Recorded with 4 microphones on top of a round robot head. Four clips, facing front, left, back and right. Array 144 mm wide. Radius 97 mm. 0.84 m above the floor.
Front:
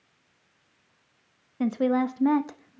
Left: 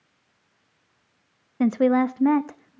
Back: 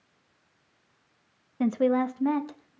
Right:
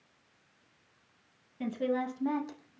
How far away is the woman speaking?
About 1.5 m.